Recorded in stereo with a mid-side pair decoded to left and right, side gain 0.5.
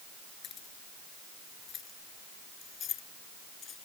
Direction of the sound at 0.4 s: 60° left.